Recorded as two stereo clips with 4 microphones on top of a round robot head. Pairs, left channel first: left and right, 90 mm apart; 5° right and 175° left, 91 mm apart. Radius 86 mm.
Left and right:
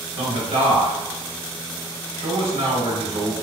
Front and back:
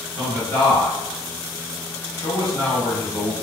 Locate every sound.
0.2 s a man speaking: 70° right, 1.1 m